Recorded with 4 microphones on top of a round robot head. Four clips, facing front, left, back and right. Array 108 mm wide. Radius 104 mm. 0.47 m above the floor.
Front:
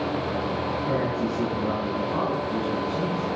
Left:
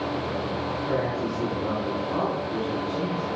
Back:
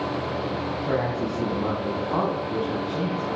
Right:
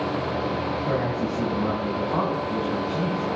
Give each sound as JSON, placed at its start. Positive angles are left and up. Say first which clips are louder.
{"t": 0.8, "sound": "a man speaking", "louder": "even, back 1 dB", "azimuth_deg": -150, "distance_m": 5.0}